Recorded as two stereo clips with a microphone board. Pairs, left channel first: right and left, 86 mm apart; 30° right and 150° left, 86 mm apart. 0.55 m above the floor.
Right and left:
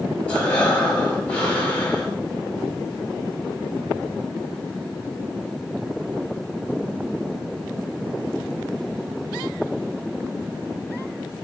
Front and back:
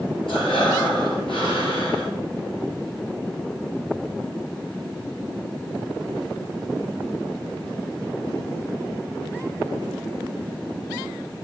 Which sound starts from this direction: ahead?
Breathing, at 0.3 s.